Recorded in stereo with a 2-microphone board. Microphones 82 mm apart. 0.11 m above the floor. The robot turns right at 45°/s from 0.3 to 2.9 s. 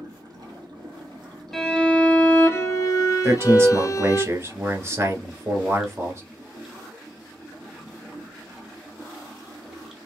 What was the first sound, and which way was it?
Running water, 120° right.